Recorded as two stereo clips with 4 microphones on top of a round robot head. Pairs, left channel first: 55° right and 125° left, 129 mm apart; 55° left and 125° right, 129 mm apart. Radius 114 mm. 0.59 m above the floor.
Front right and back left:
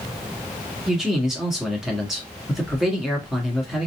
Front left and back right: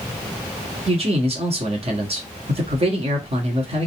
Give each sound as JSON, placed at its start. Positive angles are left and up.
{"t": 0.9, "sound": "a man speaking", "azimuth_deg": -150, "distance_m": 2.0}